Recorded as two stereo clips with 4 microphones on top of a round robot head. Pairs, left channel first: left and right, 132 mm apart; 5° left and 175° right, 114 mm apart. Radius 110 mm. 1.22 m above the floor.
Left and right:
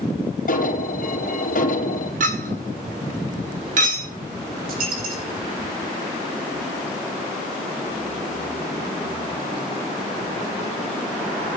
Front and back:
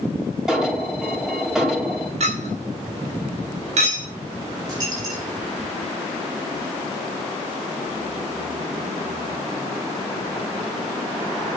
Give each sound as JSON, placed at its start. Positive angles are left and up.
{"t": 0.5, "sound": "an alarm", "azimuth_deg": 100, "distance_m": 4.0}
{"t": 2.2, "sound": "a clink", "azimuth_deg": -130, "distance_m": 2.0}
{"t": 4.7, "sound": "a dropped coin", "azimuth_deg": -110, "distance_m": 7.0}